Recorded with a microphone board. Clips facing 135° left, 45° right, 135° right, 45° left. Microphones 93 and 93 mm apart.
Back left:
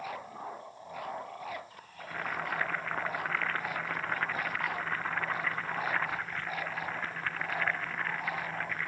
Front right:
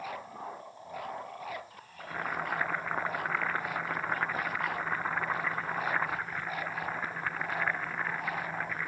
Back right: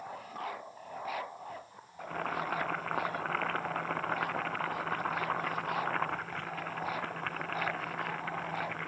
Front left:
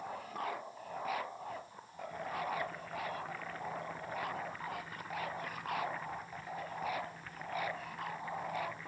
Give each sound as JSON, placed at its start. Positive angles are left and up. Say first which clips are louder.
{"t": 2.0, "sound": "boiling", "louder": "front right 1 dB, back right 4 dB", "azimuth_deg": -125}